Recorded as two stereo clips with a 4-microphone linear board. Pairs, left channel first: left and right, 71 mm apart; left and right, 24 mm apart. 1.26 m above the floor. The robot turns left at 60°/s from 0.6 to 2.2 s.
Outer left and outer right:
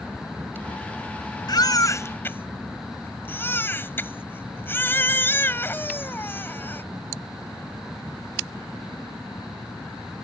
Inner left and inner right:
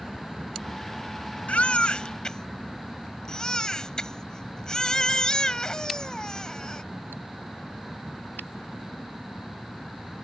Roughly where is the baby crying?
Left.